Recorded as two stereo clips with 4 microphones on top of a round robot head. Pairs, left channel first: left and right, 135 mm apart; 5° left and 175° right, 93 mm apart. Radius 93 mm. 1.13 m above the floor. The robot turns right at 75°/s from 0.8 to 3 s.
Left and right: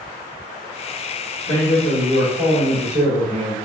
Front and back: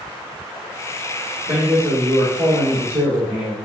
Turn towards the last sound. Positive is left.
turn(degrees=-115)